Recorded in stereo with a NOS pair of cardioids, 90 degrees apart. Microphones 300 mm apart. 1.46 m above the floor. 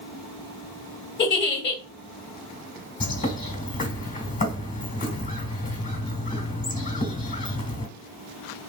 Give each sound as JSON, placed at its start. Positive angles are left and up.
{"t": 1.2, "sound": "a giggle", "azimuth_deg": 35, "distance_m": 1.2}
{"t": 3.0, "sound": "a bird", "azimuth_deg": 30, "distance_m": 1.3}